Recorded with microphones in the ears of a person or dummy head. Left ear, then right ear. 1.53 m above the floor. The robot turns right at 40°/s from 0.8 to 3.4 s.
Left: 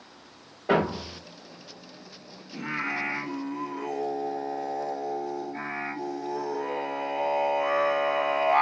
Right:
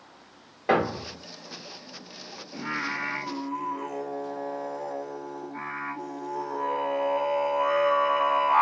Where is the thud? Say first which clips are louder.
Right 1 dB; 65° right (ahead or behind), 2.5 m; by 1.2 s 60° right (ahead or behind), 2.5 m.